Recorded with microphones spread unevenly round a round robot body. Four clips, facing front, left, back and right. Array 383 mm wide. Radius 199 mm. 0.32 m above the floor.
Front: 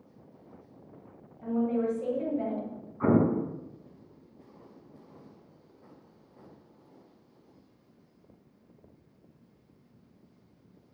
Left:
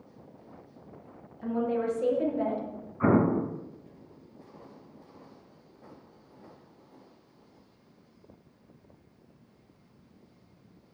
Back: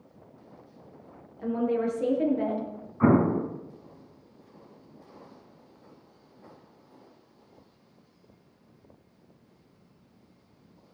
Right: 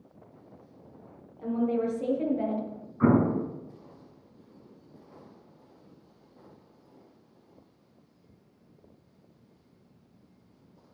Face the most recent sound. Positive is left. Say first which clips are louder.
# right 1 dB, back 3 dB
turn(degrees=-135)